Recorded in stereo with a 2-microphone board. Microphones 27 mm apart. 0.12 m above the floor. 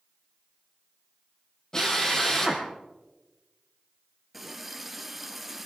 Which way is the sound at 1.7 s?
25° left (ahead or behind).